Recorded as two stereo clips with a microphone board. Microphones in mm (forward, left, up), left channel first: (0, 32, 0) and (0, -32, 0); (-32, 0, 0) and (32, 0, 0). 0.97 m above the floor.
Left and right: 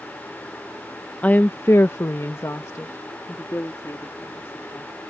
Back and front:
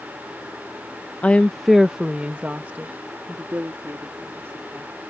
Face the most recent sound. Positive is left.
turn(degrees=45)